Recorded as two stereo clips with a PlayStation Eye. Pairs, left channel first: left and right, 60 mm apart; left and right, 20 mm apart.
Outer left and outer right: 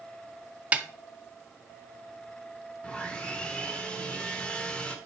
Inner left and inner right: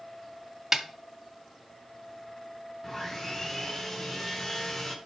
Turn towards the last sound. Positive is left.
turn(degrees=20)  # may be behind; listen again after turning